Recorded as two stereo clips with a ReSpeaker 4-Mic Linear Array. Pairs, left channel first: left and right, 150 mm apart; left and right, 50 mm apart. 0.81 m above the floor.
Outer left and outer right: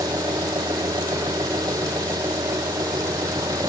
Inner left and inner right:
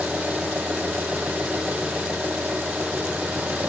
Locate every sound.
0.0 s an engine running: 25° right (ahead or behind)